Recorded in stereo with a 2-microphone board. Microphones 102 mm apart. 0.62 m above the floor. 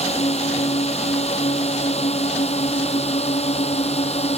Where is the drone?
80° left; by 4.4 s 75° left (ahead or behind).